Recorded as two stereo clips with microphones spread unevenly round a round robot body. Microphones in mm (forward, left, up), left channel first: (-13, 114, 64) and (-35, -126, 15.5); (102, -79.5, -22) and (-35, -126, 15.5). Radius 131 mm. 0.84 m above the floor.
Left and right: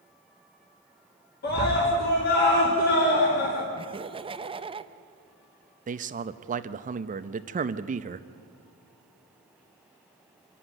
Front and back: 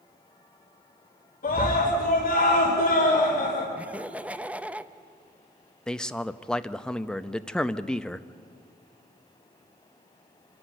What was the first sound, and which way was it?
A scream, 30° left.